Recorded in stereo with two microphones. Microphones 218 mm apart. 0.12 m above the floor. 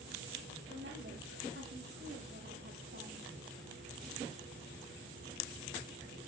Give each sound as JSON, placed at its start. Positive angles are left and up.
{"t": 0.7, "sound": "a woman speaking", "side_deg": -55, "distance_m": 4.0}